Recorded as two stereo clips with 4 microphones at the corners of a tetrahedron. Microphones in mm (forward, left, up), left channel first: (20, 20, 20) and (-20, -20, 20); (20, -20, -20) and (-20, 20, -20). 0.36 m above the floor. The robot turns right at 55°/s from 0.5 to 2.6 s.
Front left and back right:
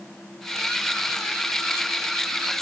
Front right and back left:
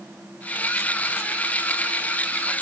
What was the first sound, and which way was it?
Only background noise.